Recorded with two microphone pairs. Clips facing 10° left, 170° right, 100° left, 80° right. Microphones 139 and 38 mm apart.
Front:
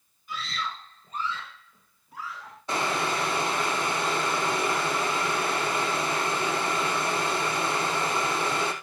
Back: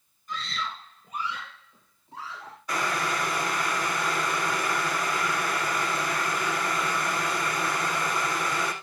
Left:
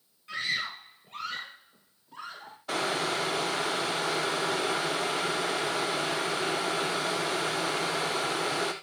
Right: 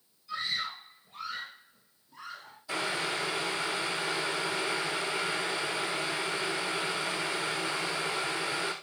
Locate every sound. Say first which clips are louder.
0.3 s a scream: even, left 2 dB; 95° left, 2.5 m; by 2.6 s 130° left, 4 m
2.7 s boiling: front 1 dB, left 3 dB; 75° left, 2.5 m